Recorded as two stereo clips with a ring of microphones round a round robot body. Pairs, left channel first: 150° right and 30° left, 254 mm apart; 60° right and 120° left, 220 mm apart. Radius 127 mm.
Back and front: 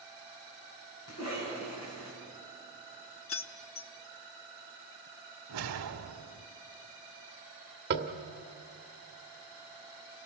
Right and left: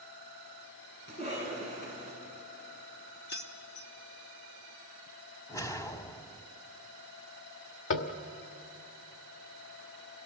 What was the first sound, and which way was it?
A cough, 115° right.